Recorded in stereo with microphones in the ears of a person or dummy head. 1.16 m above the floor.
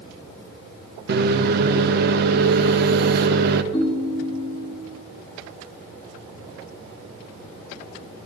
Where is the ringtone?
25° left (ahead or behind), 2 m.